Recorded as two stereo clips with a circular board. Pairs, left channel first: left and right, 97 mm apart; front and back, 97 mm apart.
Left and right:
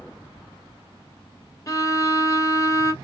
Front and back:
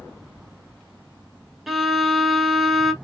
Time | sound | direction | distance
1.7 | a violin | 95° left | 1.0 m